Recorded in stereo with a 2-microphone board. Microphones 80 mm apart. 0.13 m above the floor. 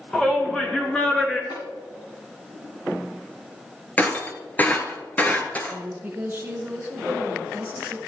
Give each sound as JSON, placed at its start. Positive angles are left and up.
{"t": 0.1, "sound": "a shout", "side_deg": 10, "distance_m": 1.8}
{"t": 1.5, "sound": "tapping", "side_deg": 80, "distance_m": 5.5}
{"t": 4.0, "sound": "breaking glass", "side_deg": 20, "distance_m": 1.2}
{"t": 5.7, "sound": "a woman speaking", "side_deg": -25, "distance_m": 1.3}